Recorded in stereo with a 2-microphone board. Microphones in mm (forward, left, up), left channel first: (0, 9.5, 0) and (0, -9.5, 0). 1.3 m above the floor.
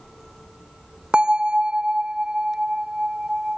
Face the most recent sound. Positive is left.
turn(degrees=-65)  # may be behind; listen again after turning